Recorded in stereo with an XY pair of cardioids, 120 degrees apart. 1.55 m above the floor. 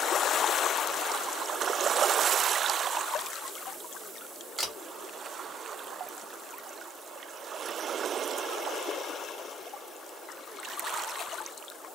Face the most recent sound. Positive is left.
turn(degrees=-20)